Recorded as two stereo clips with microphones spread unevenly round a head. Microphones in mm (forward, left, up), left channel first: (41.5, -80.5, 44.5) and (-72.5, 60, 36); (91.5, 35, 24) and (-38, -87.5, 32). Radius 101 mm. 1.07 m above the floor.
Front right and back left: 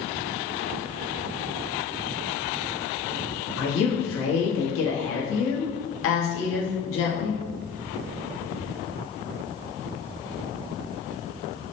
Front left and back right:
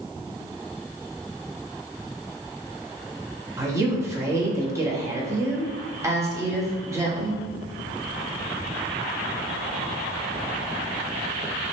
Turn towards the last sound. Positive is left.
turn(degrees=-60)